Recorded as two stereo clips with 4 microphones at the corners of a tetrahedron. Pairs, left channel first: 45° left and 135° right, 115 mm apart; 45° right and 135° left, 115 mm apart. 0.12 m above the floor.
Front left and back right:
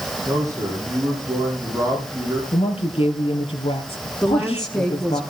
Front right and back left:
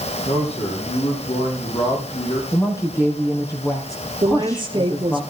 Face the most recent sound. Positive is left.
turn(degrees=130)